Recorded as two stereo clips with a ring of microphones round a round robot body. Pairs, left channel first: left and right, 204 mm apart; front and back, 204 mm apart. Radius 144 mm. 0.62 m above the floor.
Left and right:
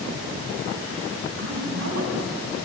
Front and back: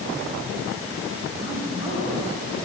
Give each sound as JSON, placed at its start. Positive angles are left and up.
{"t": 1.4, "sound": "a woman speaking", "azimuth_deg": -105, "distance_m": 4.0}